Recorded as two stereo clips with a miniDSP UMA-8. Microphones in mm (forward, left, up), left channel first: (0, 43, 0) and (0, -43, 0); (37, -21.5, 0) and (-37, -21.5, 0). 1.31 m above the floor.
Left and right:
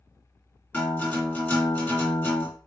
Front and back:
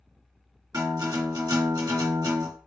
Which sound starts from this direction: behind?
A guitar, at 0.7 s.